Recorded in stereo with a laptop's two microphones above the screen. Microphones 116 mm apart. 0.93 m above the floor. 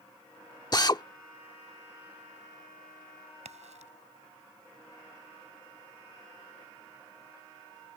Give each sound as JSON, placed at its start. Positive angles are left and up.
{"t": 0.7, "sound": "a drill", "side_deg": 35}
{"t": 3.5, "sound": "a crack", "side_deg": -80}